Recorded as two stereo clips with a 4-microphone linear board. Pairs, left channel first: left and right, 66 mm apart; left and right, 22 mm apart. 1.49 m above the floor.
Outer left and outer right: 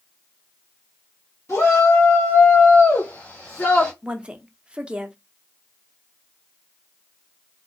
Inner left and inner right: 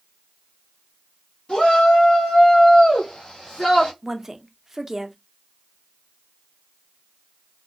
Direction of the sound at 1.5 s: 55° left (ahead or behind).